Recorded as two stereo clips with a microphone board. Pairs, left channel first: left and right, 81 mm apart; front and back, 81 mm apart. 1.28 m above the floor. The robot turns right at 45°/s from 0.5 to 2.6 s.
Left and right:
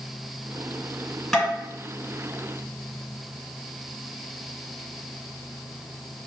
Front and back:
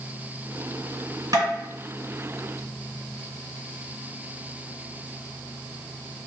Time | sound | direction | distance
1.3 | tapping | 175° left | 1.8 m